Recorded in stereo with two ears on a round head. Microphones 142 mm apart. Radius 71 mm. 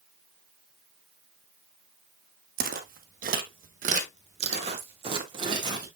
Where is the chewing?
No chewing in this recording.